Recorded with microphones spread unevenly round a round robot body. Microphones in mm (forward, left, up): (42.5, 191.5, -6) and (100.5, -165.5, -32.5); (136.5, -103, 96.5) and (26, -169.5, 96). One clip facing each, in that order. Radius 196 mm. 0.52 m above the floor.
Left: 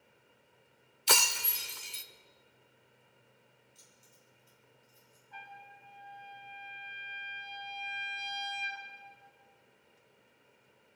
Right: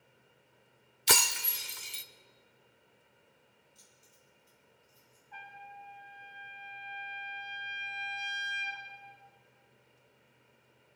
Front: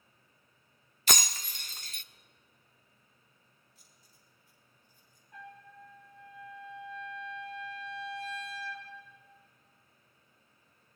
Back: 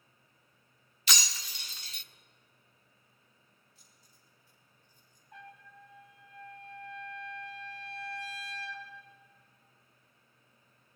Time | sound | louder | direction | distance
1.1 | breaking glass | right 1 dB, front 4 dB | 20° right | 0.6 m
3.8 | keys jangling | left 1 dB, even | 170° left | 4.5 m
5.3 | a trumpet | right 2 dB, front 2 dB | 175° right | 2.5 m